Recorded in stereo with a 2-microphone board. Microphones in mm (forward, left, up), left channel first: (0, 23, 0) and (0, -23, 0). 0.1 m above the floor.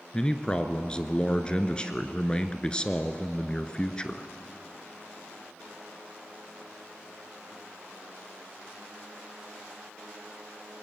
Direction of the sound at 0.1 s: 20° left (ahead or behind).